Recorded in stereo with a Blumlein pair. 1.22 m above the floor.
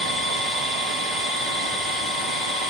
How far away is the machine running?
About 3 m.